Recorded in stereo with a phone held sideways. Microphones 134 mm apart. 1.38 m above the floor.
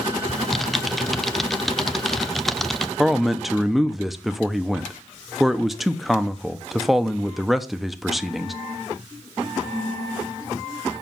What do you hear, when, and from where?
0.3 s typing on a keyboard: centre (ahead or behind), 0.6 m
3.0 s a man speaking: centre (ahead or behind), 0.8 m